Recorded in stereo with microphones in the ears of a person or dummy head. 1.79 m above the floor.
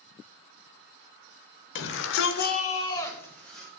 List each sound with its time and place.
1.8 s a shout: 60° left (ahead or behind), 1.2 m; by 3.7 s 5° left (ahead or behind), 2 m